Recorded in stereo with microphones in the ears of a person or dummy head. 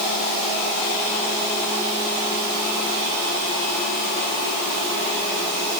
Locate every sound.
Only background noise.